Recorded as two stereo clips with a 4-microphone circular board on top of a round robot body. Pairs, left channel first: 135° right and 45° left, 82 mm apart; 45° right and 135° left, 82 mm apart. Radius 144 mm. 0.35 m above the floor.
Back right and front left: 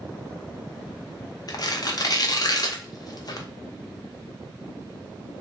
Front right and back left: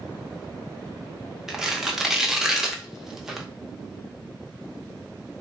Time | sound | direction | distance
1.5 | tearing paper | 140° right | 0.7 m